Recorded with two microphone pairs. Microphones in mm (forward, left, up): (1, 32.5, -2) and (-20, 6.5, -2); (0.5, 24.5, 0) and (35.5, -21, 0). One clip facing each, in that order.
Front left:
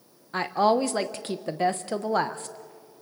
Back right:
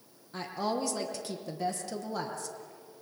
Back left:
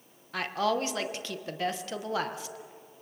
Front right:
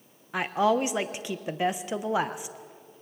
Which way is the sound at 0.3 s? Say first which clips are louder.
Front left 11 dB, front right 5 dB; 15° left.